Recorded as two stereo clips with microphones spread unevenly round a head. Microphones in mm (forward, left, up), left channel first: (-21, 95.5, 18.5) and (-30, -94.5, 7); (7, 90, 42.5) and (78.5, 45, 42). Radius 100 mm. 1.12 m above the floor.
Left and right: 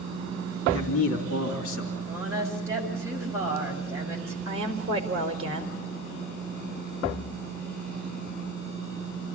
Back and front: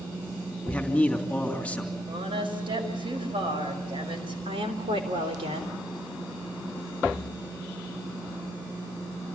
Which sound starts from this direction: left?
A man speaking, at 0.7 s.